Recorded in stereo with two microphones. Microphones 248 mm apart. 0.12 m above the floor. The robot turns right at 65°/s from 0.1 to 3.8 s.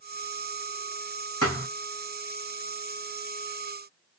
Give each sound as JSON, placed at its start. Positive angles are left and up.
{"t": 1.4, "sound": "a thud", "side_deg": 70, "distance_m": 2.5}